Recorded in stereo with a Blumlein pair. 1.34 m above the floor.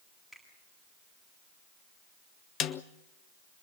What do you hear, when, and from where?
0.3 s a finger snap: straight ahead, 9.5 m
2.6 s a snare drum: 30° left, 0.9 m